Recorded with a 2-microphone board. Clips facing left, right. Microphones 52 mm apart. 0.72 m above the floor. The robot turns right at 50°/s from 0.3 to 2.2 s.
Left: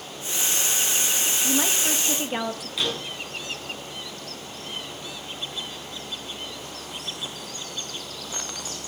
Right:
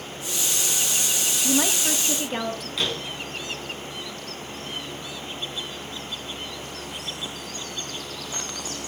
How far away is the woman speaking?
About 0.8 m.